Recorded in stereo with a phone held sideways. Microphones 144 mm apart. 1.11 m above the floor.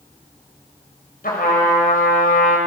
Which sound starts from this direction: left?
A trumpet, at 1.2 s.